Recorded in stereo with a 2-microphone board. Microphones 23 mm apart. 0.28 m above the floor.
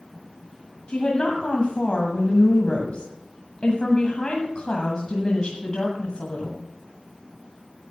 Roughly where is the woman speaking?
Left.